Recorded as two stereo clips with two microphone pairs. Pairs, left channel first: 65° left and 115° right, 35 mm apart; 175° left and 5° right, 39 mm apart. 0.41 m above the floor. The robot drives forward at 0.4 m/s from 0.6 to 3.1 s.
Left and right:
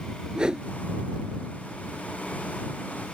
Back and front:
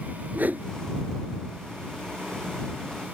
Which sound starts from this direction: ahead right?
A whoosh, at 0.3 s.